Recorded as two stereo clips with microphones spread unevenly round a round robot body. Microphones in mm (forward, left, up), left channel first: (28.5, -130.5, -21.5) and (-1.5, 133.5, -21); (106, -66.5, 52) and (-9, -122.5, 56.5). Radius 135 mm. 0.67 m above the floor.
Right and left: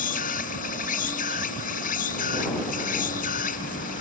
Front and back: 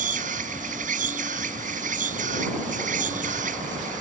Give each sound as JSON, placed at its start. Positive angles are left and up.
{"t": 0.0, "sound": "an insect", "azimuth_deg": -145}